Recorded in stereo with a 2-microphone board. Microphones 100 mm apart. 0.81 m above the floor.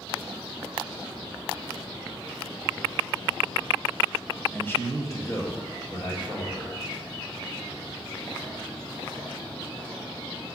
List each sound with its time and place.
4.5 s a man speaking: 15° left (ahead or behind), 0.9 m; by 6.7 s 30° left (ahead or behind), 3 m